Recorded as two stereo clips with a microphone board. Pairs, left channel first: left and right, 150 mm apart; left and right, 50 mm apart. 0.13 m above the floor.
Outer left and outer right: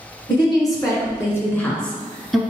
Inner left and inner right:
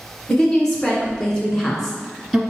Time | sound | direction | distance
0.3 | a woman speaking | 30° left (ahead or behind) | 1.3 m